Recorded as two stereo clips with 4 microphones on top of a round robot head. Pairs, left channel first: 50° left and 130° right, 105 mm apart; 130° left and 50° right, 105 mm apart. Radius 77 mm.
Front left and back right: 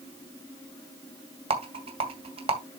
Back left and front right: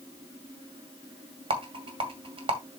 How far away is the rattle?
About 2 m.